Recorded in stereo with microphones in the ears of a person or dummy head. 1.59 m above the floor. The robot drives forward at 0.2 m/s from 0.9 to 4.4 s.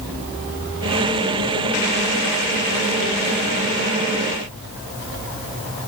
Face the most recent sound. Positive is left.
No sound to turn to.